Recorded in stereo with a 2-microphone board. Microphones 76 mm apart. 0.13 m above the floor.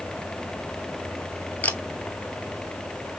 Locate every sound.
1.6 s a camera shutter: 20° left (ahead or behind), 0.7 m